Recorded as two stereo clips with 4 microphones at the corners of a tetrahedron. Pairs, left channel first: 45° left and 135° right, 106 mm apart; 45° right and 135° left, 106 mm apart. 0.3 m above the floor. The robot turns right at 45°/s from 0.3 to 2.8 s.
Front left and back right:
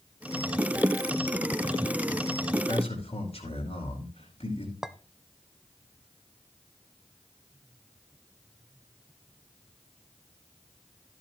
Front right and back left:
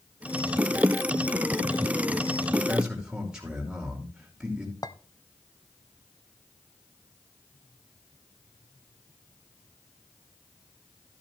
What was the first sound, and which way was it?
A man speaking, 45° left.